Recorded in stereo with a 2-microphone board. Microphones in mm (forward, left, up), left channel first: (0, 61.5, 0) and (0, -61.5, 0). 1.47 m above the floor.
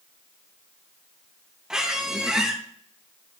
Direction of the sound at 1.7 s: 5° right (ahead or behind).